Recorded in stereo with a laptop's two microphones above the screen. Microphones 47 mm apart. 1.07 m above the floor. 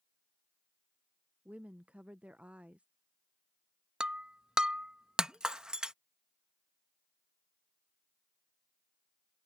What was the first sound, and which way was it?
A woman speaking, 25° right (ahead or behind).